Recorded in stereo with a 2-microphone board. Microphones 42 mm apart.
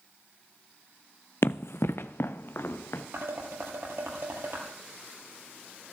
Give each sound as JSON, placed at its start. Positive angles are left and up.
{"t": 1.4, "sound": "running footsteps", "side_deg": 70, "distance_m": 0.6}
{"t": 3.1, "sound": "dishes clattering", "side_deg": -75, "distance_m": 3.5}